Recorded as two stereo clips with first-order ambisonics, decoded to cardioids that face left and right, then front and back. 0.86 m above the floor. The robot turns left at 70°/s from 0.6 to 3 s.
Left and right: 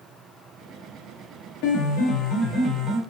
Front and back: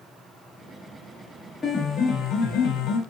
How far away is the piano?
About 1.1 m.